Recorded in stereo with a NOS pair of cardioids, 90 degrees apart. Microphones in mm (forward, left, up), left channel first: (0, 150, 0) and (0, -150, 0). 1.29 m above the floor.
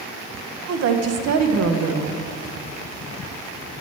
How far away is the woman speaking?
About 0.8 m.